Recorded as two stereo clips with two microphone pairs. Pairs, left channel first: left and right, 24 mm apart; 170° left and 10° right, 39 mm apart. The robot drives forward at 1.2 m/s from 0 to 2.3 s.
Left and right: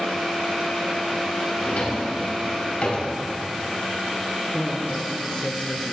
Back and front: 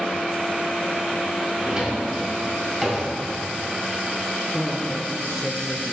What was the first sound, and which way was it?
A drawer, 55° left.